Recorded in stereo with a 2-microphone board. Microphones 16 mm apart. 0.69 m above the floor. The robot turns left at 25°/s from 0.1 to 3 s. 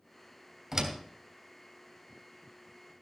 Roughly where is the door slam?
Right.